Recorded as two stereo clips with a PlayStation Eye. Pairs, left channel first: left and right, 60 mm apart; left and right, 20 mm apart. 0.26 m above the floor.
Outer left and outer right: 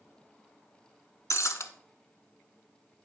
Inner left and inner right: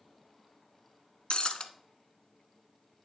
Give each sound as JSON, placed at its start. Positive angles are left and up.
{"t": 1.3, "sound": "breaking glass", "side_deg": 55, "distance_m": 0.5}